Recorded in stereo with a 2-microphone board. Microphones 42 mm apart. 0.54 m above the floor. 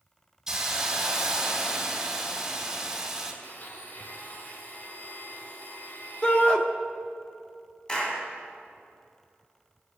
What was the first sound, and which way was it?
A hiss, 10° right (ahead or behind).